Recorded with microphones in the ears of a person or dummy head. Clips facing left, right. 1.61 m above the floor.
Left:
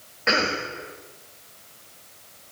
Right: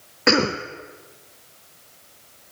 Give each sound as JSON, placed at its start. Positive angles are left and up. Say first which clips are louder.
{"t": 0.3, "sound": "a cough", "louder": "right 6 dB", "side_deg": -65, "distance_m": 0.6}